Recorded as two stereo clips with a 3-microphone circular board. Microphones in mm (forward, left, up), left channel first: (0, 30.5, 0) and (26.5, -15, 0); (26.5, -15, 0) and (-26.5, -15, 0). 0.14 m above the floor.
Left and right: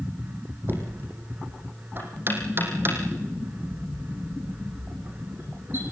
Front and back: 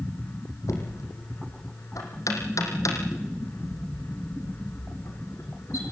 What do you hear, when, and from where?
0.7 s knocking: 10° right, 4 m